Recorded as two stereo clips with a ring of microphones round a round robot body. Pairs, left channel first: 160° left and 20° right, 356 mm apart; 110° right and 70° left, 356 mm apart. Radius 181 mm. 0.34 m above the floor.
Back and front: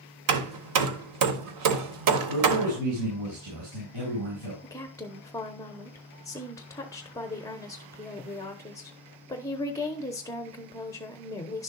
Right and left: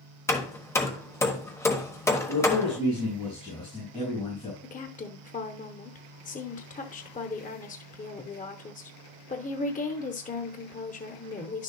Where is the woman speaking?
135° right, 0.9 m.